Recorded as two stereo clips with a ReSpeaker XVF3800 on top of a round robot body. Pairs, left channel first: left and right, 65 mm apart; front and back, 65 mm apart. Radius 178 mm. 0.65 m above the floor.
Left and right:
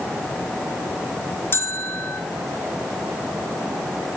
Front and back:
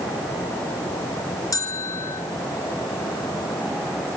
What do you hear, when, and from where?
1.5 s a bell: 35° left, 4 m